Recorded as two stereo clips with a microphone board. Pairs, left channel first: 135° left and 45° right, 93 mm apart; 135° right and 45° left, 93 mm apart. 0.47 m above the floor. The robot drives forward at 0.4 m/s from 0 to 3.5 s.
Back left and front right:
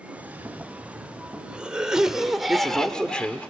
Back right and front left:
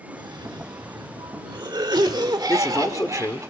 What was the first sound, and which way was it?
A cough, 20° left.